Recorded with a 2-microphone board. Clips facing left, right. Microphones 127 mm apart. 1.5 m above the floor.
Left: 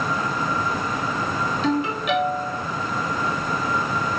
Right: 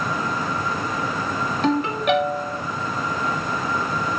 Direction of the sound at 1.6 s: 55° right (ahead or behind).